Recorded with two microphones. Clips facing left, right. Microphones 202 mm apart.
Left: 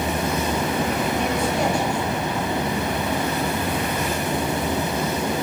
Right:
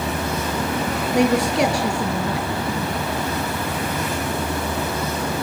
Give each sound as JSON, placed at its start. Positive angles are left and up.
{"t": 1.1, "sound": "a man speaking", "side_deg": -75, "distance_m": 6.0}